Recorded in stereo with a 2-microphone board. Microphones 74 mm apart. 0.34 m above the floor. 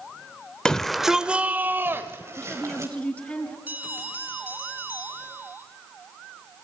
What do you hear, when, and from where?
0.7 s a shout: 10° left (ahead or behind), 0.9 m; by 2.9 s 45° right (ahead or behind), 1.7 m
2.4 s a woman speaking: 20° left (ahead or behind), 4 m
3.7 s a bell: 25° right (ahead or behind), 3 m